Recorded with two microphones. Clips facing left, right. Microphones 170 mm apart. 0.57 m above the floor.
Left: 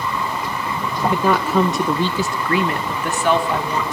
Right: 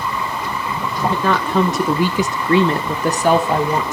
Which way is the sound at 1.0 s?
15° left (ahead or behind).